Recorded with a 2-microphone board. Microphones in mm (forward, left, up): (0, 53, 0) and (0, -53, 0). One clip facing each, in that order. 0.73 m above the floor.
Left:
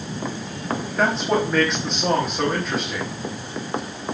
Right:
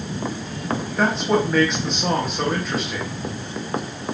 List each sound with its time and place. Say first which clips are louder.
1.0 s a man speaking: right 1 dB; centre (ahead or behind), 0.9 m